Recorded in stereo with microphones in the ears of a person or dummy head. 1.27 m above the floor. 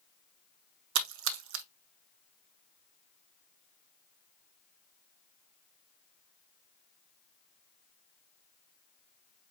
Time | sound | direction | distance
0.9 | a splash | 70° right (ahead or behind) | 0.6 m